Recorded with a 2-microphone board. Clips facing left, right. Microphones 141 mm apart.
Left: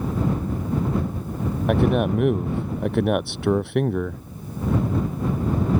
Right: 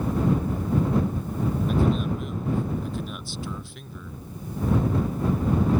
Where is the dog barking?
I don't hear a dog barking.